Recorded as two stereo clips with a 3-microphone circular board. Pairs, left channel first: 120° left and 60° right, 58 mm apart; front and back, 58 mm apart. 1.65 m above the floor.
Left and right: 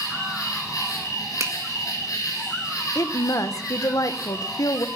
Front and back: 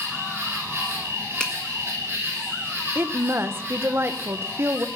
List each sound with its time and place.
0.0 s an insect: 130° left, 7 m
1.4 s a finger snap: 75° right, 1.9 m
3.0 s a woman speaking: 135° left, 1.2 m